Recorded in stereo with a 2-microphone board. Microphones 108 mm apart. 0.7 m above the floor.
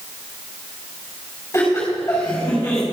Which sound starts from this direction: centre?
Laughter, at 1.5 s.